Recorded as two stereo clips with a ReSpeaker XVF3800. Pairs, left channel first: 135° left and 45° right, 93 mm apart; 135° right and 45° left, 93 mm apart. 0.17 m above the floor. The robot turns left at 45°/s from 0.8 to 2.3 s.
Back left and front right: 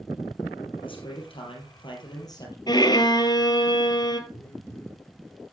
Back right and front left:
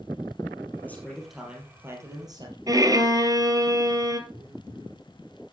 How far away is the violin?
About 1.6 m.